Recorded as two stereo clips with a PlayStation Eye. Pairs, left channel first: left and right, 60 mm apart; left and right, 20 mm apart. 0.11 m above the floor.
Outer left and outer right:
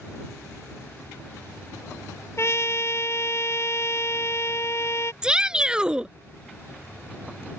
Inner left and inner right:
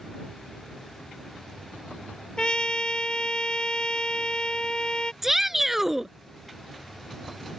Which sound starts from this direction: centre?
A shout, at 5.2 s.